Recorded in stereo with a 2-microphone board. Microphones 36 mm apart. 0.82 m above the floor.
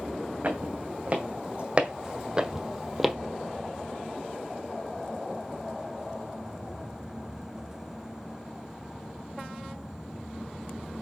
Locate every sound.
0.4 s footsteps: 45° right (ahead or behind), 2.5 m; by 3.1 s centre (ahead or behind), 1.1 m